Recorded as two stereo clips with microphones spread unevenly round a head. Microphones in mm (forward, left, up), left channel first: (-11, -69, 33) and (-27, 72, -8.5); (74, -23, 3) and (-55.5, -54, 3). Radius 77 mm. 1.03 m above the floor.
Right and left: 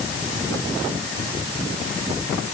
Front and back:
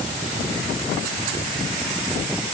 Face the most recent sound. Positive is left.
No sound to turn to.